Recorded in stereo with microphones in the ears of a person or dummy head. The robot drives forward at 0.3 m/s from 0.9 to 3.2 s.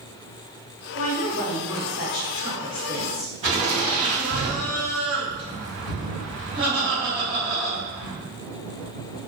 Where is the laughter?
35° right (ahead or behind), 1.9 m.